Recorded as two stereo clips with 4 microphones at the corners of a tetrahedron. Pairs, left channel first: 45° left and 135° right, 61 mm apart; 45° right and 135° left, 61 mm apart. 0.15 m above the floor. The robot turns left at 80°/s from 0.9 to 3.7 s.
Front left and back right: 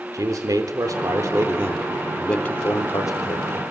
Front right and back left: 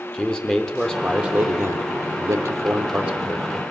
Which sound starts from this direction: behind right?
A man speaking, at 0.1 s.